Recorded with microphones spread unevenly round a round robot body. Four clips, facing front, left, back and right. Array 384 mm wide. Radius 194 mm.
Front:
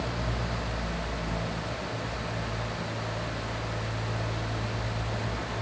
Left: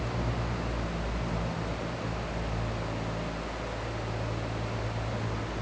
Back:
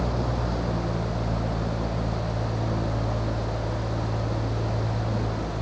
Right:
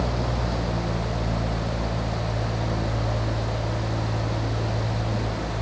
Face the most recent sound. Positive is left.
No sound to turn to.